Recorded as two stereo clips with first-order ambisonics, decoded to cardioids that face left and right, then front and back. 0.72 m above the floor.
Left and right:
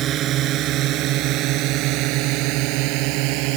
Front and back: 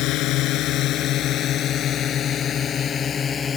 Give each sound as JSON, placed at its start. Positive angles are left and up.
{"t": 0.0, "sound": "a drone", "azimuth_deg": -35}